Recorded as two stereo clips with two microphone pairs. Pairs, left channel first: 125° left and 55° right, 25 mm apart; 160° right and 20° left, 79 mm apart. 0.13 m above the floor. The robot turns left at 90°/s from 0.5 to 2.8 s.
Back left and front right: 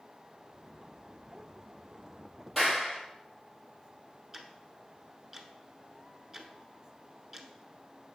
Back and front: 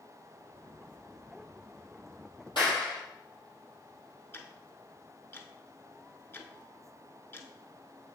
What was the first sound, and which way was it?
A clap, 160° right.